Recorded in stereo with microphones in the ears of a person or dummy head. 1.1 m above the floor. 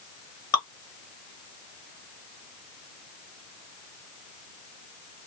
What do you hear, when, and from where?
0.5 s dripping: 15° left (ahead or behind), 1.1 m